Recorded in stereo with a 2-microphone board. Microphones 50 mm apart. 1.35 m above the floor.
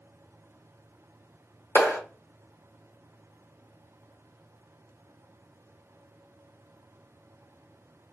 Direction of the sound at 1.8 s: 55° left (ahead or behind).